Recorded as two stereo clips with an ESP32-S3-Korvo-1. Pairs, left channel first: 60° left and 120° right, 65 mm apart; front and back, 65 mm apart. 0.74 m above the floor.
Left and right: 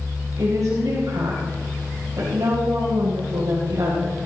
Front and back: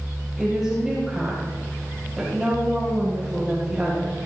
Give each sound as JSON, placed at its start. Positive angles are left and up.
{"t": 0.4, "sound": "a woman speaking", "azimuth_deg": -95, "distance_m": 3.5}